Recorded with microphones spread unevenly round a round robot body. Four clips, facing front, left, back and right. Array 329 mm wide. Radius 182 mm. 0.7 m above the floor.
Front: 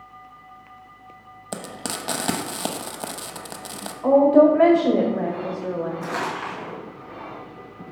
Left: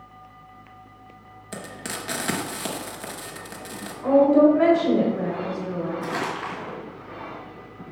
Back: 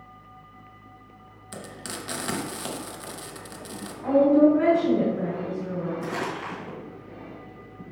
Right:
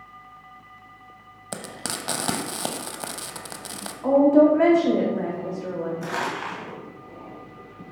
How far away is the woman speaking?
About 1.5 m.